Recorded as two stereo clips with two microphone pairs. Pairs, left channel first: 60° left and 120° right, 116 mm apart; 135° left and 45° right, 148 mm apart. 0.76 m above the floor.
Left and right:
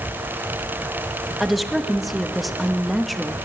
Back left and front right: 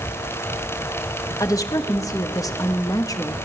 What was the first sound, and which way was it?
A woman speaking, 155° left.